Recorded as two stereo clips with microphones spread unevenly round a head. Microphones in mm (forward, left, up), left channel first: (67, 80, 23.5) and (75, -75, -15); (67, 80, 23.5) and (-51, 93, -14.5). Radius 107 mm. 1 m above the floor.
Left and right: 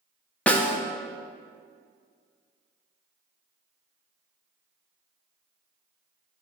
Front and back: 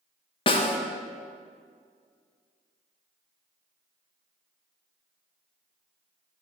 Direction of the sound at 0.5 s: 10° right.